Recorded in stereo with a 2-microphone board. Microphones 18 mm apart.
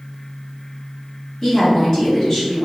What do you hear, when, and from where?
1.4 s a woman speaking: 30° left (ahead or behind), 1.0 m